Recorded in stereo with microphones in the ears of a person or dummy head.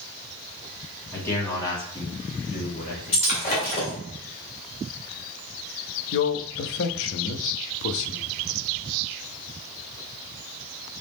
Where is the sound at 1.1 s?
15° left (ahead or behind), 1.7 m; by 3.6 s 55° left (ahead or behind), 1.7 m.